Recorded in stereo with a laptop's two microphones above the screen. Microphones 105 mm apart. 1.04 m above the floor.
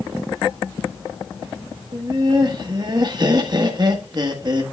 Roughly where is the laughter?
Right.